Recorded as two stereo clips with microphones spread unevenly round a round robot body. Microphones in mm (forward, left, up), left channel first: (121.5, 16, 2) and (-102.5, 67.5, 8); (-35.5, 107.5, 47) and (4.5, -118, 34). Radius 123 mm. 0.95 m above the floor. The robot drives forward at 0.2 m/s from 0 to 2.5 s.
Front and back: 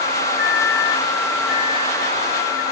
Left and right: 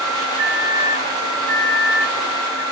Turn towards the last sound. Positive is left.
turn(degrees=-75)